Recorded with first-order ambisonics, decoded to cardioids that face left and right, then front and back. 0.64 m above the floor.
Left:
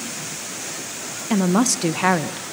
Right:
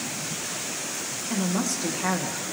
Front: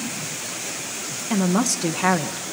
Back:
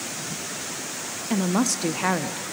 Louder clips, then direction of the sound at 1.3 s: Left 9 dB, front 2 dB; 90° left.